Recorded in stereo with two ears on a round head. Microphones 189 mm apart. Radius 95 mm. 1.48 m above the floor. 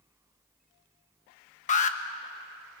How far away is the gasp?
No gasp in this recording.